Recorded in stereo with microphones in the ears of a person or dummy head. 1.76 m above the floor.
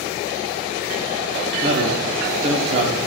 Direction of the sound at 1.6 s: 40° right (ahead or behind).